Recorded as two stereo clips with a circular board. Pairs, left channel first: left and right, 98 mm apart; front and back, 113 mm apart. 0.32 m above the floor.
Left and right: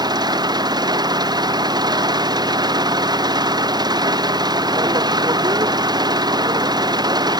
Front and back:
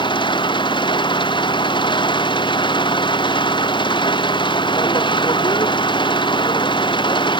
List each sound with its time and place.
0.0 s an engine running: 45° right